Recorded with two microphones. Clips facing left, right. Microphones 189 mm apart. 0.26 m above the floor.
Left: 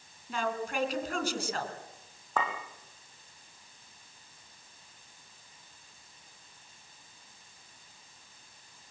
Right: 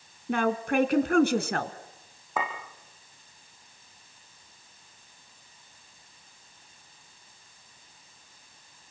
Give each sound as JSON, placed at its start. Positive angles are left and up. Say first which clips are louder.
{"t": 0.3, "sound": "a woman speaking", "louder": "right 8 dB", "side_deg": -65, "distance_m": 2.5}
{"t": 2.4, "sound": "a clink", "louder": "right 1 dB", "side_deg": -10, "distance_m": 7.5}